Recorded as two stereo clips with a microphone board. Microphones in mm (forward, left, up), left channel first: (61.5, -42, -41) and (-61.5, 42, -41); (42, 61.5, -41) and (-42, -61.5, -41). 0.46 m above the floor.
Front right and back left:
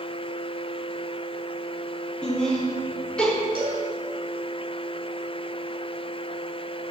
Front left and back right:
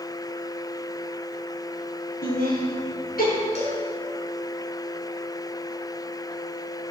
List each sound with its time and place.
2.2 s laughter: 50° left, 3.5 m
3.5 s a cowbell: 95° left, 3 m